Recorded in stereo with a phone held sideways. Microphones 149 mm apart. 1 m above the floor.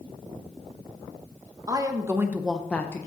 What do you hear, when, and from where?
1.7 s a woman speaking: 25° right (ahead or behind), 1.2 m; by 3.1 s 20° left (ahead or behind), 0.8 m